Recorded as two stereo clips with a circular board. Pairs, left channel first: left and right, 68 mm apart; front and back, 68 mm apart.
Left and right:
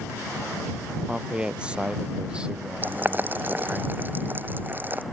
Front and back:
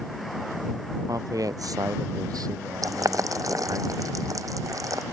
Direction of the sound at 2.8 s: 150° right.